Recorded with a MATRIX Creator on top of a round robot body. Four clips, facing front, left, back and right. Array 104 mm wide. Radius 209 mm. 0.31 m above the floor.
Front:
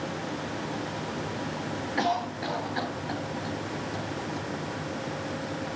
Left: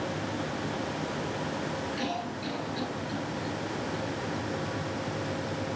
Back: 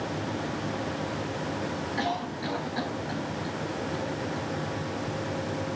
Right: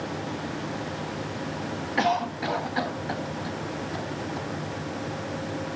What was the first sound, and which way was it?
A cough, 80° right.